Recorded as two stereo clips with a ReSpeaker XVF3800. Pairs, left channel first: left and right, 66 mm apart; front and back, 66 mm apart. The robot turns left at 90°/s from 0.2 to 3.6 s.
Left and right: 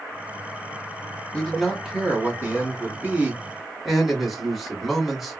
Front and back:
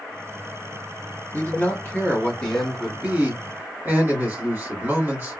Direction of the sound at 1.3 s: 30° left.